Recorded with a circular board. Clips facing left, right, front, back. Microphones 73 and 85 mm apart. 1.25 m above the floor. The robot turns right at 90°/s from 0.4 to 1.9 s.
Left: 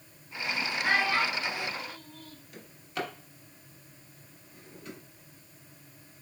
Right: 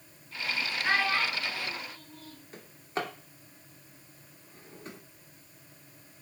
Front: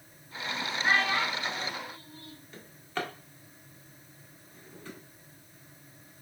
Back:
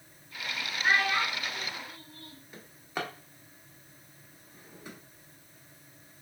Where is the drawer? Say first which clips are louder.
Right 2 dB, front 1 dB; 110° right, 0.8 m.